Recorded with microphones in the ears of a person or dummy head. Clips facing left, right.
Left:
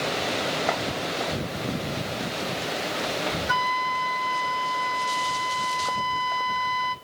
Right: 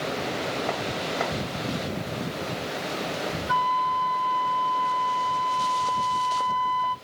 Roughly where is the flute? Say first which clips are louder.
Right 2 dB; left.